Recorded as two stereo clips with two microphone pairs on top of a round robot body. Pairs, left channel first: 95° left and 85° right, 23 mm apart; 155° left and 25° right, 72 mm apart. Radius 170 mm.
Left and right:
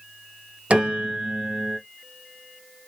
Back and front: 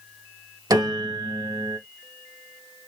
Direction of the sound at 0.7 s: 50° right.